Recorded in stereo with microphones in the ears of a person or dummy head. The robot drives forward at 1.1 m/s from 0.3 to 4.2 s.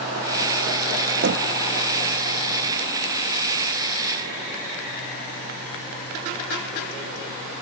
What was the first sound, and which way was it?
Knocking, 55° right (ahead or behind).